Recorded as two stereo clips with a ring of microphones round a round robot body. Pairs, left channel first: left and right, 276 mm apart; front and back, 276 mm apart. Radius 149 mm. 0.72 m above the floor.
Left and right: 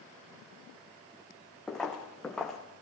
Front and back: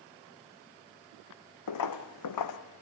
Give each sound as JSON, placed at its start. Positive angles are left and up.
{"t": 1.7, "sound": "footsteps", "azimuth_deg": 0, "distance_m": 1.8}